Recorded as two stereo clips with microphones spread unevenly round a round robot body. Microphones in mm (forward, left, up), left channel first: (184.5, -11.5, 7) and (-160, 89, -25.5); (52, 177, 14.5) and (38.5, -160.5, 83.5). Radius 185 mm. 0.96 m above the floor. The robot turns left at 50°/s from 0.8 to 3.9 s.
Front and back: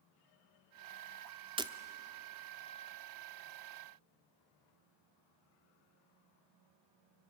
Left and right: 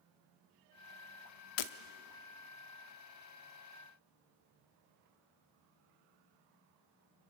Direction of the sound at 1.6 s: 85° left.